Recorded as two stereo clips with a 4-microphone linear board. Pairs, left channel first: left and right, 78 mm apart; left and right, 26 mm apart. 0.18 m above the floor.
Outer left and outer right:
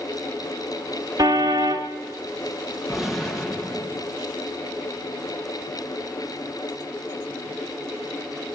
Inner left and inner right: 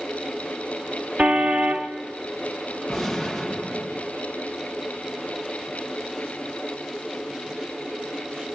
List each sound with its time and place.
1.2 s a car horn: 50° right (ahead or behind), 2.5 m
2.9 s a gunshot: centre (ahead or behind), 4 m